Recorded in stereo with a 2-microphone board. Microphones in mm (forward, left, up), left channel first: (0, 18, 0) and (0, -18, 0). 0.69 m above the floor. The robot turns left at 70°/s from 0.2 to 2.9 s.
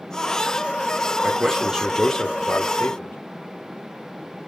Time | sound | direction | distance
1.2 | a man speaking | 135° right | 1.8 m